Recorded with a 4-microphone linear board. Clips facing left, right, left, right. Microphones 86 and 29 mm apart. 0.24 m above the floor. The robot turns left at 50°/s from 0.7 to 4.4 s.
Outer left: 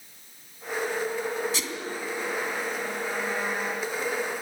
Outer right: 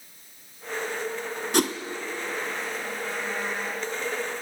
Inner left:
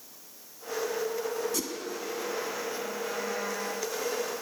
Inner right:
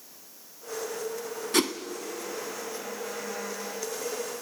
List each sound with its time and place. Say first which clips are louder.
1.5 s a whoosh: outer right 10 dB, inner right 8 dB; 55° right (ahead or behind), 1.3 m